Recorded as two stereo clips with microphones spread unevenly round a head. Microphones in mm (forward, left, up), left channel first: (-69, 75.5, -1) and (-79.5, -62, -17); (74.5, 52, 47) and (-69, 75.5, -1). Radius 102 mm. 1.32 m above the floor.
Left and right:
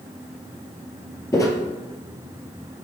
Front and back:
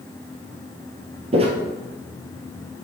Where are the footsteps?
120° left, 1.5 m.